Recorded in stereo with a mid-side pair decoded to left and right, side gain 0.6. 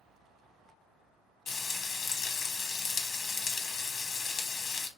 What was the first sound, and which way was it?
Frying, 50° left.